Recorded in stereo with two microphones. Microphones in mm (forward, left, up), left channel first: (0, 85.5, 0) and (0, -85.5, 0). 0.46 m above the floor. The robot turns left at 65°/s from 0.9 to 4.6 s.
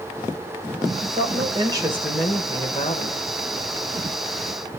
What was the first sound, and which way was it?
A woman speaking, 105° right.